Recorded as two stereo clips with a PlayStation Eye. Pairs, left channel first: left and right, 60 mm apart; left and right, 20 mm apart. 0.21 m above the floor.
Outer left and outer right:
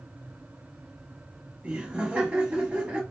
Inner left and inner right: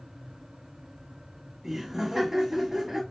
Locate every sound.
1.6 s laughter: 20° right (ahead or behind), 1.2 m